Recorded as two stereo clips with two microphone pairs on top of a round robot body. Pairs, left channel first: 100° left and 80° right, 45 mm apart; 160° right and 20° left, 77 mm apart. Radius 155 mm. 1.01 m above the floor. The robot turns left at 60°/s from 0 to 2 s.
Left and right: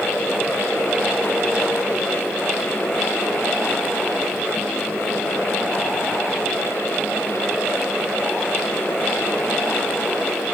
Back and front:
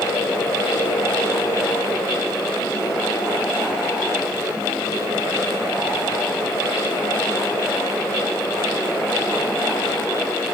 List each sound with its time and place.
Only background noise.